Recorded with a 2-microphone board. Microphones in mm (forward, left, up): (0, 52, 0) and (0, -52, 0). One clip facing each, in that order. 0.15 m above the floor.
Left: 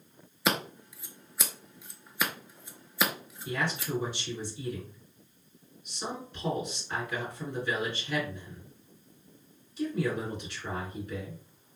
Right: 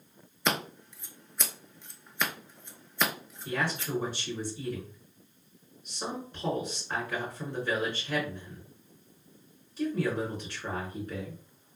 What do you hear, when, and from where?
0.5 s scissors: 5° left (ahead or behind), 0.6 m
3.5 s a man speaking: 40° right (ahead or behind), 2 m